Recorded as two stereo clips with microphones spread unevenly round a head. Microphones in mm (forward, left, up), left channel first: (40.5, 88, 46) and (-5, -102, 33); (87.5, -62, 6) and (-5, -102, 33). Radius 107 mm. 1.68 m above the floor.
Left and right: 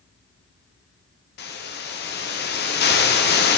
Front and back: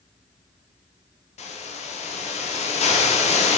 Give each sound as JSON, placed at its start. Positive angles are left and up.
{"t": 1.4, "sound": "a hiss", "azimuth_deg": 40, "distance_m": 1.1}